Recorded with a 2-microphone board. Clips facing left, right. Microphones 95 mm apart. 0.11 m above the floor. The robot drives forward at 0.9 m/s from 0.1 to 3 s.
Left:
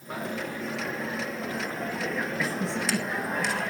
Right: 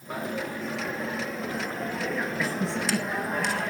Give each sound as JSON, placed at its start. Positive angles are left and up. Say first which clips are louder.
{"t": 0.1, "sound": "a dropped coin", "louder": "right 1 dB", "side_deg": 0, "distance_m": 4.5}